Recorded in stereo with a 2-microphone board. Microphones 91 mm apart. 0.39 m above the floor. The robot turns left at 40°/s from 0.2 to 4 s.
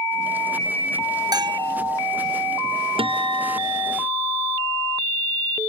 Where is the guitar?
105° right; by 3.9 s 145° right.